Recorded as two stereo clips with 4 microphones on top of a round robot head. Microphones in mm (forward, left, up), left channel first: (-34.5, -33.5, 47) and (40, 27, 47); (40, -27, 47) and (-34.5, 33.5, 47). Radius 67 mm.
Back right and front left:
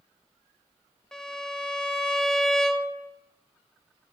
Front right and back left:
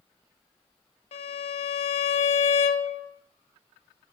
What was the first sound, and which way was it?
A violin, 55° right.